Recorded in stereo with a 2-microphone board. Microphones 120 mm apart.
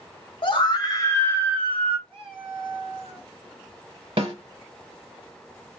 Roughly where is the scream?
Left.